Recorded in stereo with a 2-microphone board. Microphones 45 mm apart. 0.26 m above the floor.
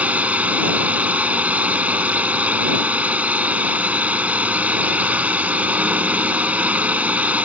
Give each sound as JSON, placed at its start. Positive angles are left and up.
{"t": 0.0, "sound": "a drone", "side_deg": -35}